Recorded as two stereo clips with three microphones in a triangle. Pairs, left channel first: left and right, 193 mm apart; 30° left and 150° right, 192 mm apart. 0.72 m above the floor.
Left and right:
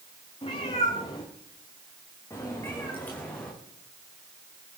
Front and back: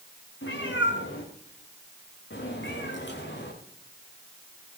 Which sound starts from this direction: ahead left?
A cat meowing, at 0.4 s.